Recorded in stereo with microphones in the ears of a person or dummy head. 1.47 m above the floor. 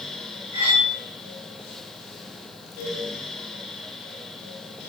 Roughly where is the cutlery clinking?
Right.